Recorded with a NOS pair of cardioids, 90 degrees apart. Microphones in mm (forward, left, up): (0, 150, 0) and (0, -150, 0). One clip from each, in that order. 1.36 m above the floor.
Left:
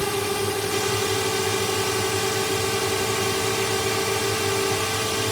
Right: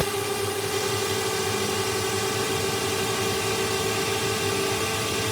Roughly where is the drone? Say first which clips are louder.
Left 2 dB; ahead.